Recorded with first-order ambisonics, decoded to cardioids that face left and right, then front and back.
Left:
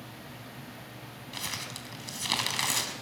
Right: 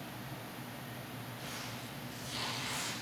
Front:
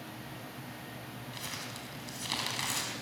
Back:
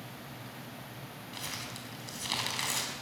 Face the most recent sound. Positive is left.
turn(degrees=95)